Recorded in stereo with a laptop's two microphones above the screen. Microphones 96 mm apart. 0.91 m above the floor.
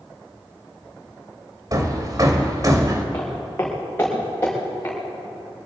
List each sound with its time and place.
1.7 s hammering: 40° right (ahead or behind), 1.7 m
3.1 s footsteps: 20° left (ahead or behind), 3.5 m